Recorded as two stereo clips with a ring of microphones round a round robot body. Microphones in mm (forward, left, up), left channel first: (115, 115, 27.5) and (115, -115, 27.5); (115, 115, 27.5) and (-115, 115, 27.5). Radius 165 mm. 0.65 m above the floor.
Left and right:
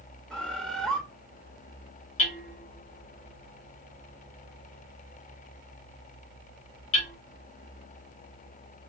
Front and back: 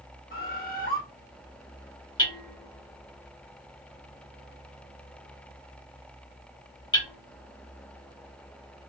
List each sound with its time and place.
0.3 s a bird: 5° left, 0.9 m
2.2 s hammering: 70° left, 1.5 m